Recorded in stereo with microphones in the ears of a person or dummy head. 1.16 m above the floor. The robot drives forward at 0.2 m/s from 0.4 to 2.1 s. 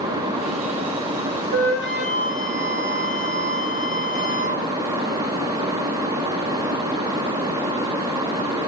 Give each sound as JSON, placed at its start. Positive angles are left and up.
{"t": 1.5, "sound": "a flute", "side_deg": -55, "distance_m": 5.5}